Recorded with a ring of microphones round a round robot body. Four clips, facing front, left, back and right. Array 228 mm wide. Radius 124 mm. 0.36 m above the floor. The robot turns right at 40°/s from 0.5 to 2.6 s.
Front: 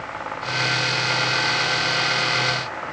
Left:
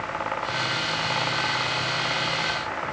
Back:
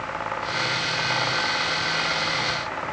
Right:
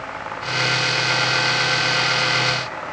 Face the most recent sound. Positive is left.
No sound to turn to.